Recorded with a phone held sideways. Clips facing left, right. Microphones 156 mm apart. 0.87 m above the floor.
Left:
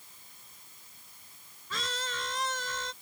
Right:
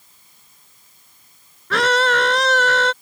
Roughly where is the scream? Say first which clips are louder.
Right 20 dB; right.